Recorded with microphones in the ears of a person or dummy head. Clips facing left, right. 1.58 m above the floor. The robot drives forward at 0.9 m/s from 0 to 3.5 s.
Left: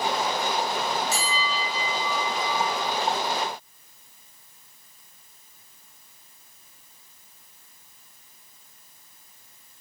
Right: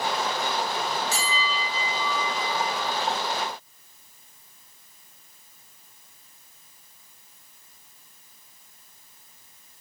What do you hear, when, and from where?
1.1 s a bell: 75° right (ahead or behind), 3.5 m; by 2.9 s 50° right (ahead or behind), 4.5 m